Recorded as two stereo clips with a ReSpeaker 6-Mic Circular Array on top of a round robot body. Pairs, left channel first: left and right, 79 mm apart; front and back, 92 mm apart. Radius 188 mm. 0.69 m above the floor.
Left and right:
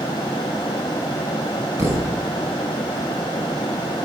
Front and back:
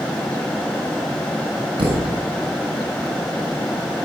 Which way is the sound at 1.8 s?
145° right.